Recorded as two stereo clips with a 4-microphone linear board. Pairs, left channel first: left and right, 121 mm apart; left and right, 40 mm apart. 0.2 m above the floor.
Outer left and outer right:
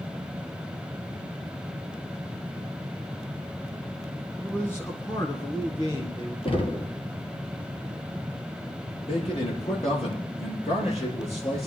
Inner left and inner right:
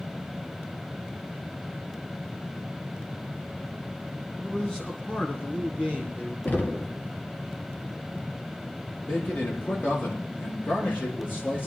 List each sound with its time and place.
4.4 s a man speaking: 10° left (ahead or behind), 1.5 m; by 6.3 s 45° left (ahead or behind), 3 m
6.5 s knocking: 50° left (ahead or behind), 2 m
9.1 s a man speaking: 60° left (ahead or behind), 6.5 m